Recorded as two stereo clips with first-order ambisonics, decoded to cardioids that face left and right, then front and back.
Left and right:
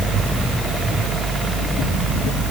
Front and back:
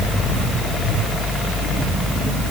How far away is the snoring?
I don't hear snoring.